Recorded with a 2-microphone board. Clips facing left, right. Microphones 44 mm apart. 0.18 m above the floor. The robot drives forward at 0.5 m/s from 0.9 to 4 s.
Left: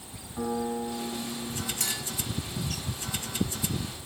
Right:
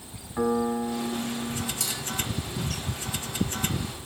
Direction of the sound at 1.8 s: 35° left (ahead or behind).